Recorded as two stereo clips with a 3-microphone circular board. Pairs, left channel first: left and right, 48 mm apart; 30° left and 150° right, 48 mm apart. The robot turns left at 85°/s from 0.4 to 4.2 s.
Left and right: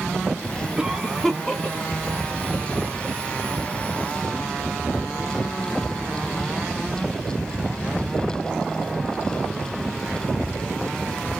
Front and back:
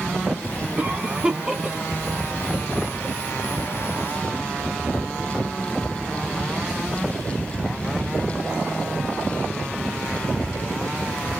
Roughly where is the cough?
Behind right.